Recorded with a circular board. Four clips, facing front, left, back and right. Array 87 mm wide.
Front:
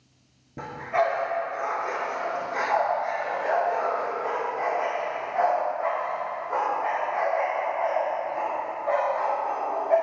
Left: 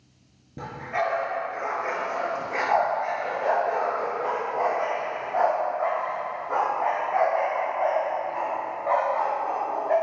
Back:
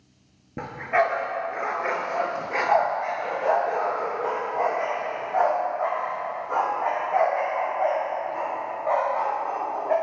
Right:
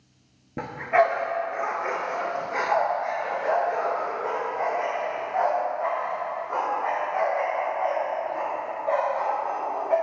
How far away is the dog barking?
About 0.9 m.